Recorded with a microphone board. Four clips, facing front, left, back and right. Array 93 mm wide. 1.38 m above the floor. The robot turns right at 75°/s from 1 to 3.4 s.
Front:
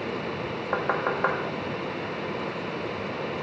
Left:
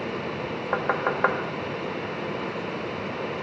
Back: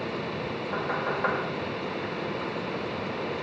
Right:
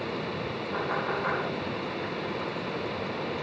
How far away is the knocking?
About 1.6 m.